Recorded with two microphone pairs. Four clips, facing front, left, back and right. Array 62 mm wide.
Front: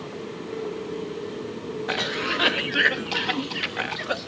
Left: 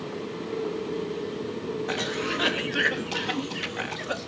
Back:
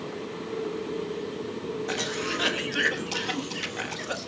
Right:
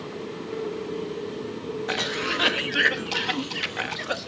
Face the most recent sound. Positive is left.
turn(degrees=-30)